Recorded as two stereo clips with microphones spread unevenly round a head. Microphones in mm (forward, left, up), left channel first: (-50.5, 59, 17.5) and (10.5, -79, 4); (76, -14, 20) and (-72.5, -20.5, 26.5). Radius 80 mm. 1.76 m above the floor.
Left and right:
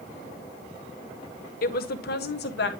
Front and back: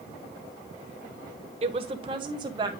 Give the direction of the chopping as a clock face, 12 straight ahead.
No chopping in this recording.